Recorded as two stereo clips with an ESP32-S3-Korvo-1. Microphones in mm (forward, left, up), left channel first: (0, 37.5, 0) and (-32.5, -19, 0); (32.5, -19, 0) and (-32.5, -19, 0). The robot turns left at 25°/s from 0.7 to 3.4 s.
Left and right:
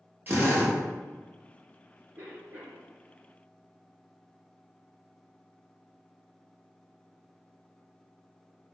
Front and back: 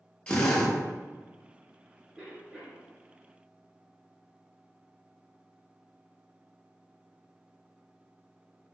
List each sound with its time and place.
0.3 s a drill: 70° right, 0.9 m
2.2 s a cough: 115° right, 1.5 m; by 2.9 s 130° right, 1.5 m